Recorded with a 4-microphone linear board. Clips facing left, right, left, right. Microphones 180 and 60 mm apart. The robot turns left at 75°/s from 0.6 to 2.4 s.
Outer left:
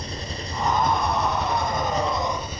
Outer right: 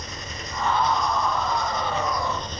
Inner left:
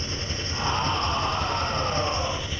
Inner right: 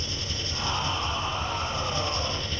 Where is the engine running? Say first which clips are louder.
Outer left 4 dB, inner left 2 dB; 145° left, 2.5 m; by 2.6 s 10° left, 2.5 m.